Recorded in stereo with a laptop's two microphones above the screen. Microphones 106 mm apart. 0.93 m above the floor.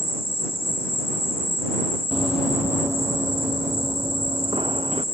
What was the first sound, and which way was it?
An insect, 55° left (ahead or behind).